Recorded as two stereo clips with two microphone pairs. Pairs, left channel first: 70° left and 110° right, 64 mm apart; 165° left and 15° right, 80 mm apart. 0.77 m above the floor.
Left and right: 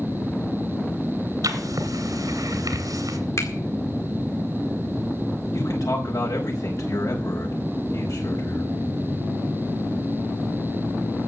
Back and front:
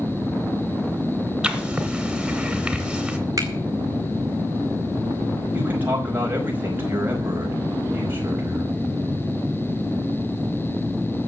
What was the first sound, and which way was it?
Writing, 95° right.